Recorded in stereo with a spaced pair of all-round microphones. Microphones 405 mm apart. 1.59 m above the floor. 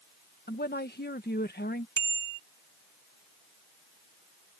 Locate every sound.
0.5 s a woman speaking: 25° left (ahead or behind)
2.0 s a bicycle bell: 45° right (ahead or behind)